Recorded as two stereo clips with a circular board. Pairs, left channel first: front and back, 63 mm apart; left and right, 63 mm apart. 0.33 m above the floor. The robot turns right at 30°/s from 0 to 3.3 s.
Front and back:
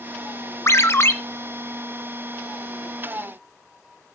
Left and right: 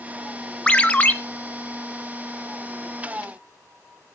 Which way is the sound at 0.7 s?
20° left.